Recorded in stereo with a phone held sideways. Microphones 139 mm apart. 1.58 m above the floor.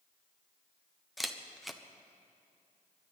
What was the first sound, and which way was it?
A camera shutter, centre (ahead or behind).